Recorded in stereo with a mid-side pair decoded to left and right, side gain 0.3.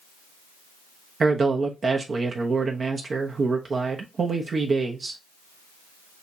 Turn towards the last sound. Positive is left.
turn(degrees=-55)